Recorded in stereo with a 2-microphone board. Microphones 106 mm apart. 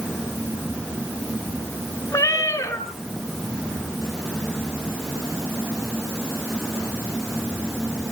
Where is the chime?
I don't hear a chime.